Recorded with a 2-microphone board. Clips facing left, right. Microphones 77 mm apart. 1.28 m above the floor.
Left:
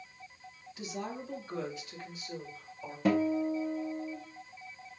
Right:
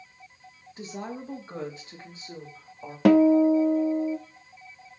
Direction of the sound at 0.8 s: 35° right (ahead or behind).